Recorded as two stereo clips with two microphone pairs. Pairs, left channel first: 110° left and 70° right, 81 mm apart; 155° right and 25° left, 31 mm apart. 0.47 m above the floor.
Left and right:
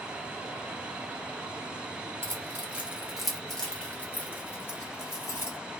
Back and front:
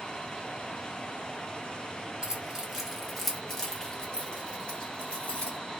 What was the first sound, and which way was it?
Keys jangling, 30° right.